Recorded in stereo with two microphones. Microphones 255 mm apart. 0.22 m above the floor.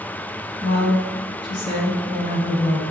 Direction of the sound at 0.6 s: 35° left (ahead or behind).